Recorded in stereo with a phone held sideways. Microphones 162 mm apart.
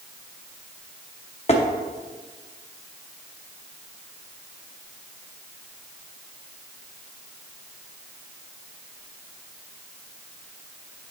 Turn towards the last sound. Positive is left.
turn(degrees=40)  # may be behind; listen again after turning